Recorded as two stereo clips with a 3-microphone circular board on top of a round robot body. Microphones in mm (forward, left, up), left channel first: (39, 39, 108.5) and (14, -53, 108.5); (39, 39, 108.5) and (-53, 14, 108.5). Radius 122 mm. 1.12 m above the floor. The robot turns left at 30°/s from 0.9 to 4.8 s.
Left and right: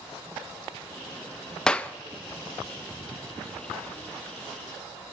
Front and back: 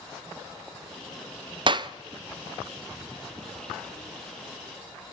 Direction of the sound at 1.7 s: 160° left.